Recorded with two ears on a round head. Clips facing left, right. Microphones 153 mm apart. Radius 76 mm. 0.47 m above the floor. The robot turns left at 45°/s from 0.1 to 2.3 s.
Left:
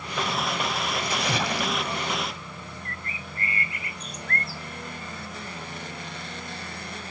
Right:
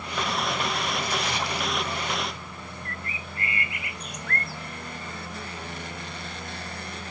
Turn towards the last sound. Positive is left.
turn(degrees=30)  # may be behind; listen again after turning